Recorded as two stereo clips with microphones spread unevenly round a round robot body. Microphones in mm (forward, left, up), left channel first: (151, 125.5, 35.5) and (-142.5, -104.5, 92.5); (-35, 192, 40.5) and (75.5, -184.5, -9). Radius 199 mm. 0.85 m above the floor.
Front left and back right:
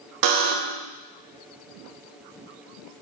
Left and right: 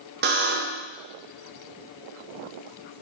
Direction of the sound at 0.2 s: 120° right.